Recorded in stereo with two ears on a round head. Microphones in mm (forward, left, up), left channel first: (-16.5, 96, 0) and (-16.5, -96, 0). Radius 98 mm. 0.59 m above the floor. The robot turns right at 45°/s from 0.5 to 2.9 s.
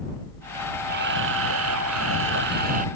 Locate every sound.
0.9 s a camera shutter: 125° right; by 2.9 s 35° right